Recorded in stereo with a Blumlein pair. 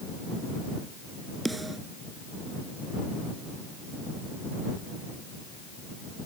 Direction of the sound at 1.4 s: 5° right.